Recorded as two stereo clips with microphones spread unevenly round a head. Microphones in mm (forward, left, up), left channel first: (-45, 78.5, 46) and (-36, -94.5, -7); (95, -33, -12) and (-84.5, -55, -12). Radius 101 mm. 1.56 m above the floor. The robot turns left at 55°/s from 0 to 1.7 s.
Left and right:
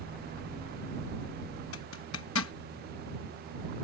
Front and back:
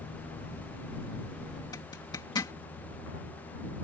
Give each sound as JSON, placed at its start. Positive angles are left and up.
{"t": 1.7, "sound": "a zipper", "azimuth_deg": 80}